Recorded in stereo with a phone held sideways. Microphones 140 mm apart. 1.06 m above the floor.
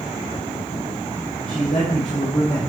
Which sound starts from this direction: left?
A woman speaking, at 1.5 s.